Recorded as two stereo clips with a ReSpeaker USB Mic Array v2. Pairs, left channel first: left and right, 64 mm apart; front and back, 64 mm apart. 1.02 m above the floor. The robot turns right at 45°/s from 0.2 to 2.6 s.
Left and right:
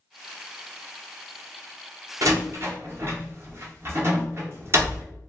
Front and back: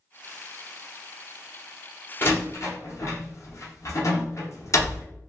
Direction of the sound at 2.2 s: 55° right.